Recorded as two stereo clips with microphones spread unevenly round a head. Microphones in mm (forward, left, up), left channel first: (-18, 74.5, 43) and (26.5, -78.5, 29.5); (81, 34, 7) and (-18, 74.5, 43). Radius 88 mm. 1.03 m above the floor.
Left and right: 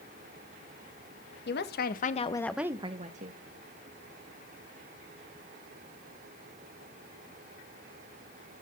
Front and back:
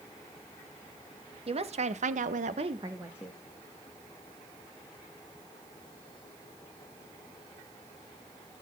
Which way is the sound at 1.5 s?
125° left.